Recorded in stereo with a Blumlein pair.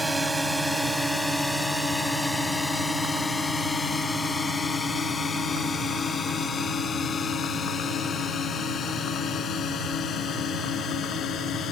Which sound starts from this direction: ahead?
A drone, at 0.0 s.